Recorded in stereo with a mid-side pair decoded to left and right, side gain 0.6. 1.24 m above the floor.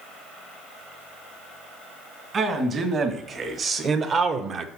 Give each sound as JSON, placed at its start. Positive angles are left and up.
{"t": 2.3, "sound": "a man speaking", "azimuth_deg": -45, "distance_m": 2.0}